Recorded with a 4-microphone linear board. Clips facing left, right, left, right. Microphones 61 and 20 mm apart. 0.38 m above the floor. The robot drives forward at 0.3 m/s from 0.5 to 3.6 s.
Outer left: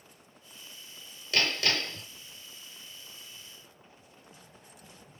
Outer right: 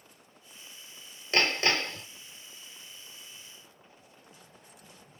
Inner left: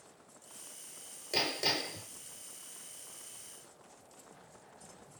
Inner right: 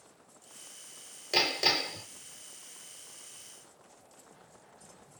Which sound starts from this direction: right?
Hammering, at 1.3 s.